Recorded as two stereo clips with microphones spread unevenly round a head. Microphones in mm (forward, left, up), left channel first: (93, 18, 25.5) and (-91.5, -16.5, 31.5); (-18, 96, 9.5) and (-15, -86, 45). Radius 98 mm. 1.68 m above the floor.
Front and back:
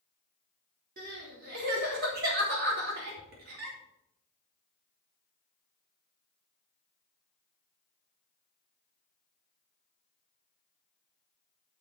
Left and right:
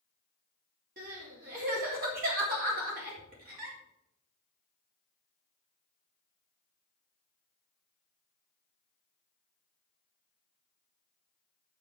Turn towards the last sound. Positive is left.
turn(degrees=-130)